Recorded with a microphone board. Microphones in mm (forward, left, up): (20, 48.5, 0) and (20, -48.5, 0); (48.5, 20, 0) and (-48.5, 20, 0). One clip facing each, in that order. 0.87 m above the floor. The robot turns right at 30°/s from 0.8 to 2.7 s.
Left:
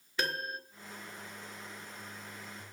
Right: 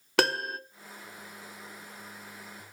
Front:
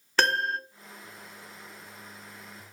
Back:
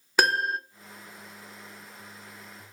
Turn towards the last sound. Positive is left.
turn(degrees=-45)